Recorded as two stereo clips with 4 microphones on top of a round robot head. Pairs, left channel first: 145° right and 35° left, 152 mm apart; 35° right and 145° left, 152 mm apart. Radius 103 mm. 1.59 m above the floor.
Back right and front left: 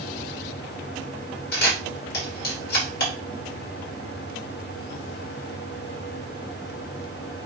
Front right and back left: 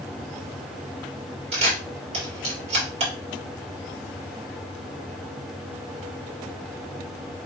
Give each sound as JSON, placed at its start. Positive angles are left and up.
{"t": 1.5, "sound": "a camera shutter", "azimuth_deg": -165, "distance_m": 3.5}